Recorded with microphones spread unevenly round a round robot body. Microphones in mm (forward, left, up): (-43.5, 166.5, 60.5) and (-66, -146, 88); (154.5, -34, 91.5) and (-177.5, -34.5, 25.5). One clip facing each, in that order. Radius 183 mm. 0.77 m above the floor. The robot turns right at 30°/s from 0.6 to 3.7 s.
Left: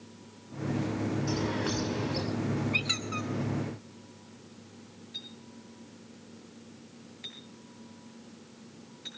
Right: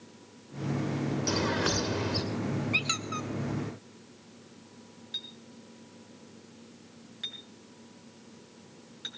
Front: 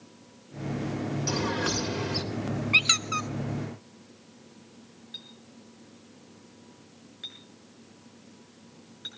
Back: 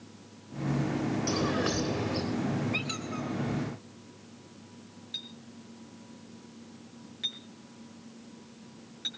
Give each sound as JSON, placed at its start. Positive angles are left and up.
{"t": 1.3, "sound": "a bird", "azimuth_deg": -85, "distance_m": 2.0}
{"t": 2.7, "sound": "a squeak", "azimuth_deg": -20, "distance_m": 0.7}
{"t": 5.1, "sound": "a clink", "azimuth_deg": -100, "distance_m": 6.0}